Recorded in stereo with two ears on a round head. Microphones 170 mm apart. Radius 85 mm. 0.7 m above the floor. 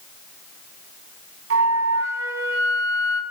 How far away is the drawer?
I don't hear a drawer.